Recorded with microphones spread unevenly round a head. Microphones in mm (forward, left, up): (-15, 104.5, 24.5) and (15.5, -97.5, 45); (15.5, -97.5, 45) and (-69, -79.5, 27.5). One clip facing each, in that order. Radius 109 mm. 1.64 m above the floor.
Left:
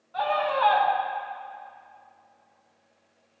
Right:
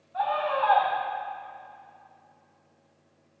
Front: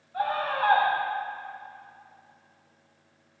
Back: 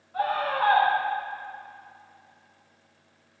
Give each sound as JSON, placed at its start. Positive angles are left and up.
{"t": 0.1, "sound": "a scream", "azimuth_deg": 105, "distance_m": 6.0}